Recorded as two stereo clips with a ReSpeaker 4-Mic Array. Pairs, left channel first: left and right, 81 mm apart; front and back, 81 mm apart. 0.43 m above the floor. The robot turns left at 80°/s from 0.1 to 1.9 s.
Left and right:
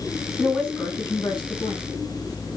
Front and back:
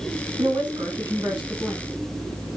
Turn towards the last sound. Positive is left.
turn(degrees=60)